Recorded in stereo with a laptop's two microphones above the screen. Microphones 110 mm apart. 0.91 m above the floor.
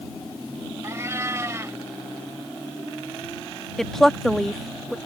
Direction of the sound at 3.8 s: 5° left (ahead or behind).